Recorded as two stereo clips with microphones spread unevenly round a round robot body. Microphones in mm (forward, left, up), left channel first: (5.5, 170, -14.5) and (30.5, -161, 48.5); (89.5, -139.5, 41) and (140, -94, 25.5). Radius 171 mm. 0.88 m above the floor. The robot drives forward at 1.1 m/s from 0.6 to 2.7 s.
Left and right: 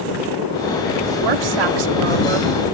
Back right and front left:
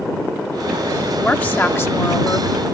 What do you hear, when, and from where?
1.2 s a woman speaking: 65° right; by 2.5 s 95° right